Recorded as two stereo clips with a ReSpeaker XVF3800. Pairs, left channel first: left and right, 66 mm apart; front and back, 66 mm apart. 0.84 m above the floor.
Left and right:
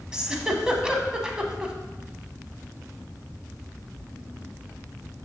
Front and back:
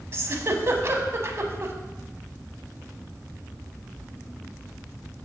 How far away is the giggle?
About 0.8 m.